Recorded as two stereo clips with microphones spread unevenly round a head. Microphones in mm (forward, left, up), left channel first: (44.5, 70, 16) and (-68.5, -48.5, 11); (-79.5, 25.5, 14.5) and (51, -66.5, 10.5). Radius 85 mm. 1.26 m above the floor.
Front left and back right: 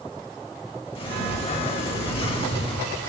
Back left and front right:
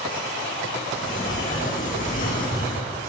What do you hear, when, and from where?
0.9 s a sliding door: 100° left, 1.5 m